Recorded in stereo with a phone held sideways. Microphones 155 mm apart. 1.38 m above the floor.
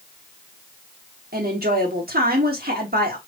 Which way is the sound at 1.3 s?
80° right.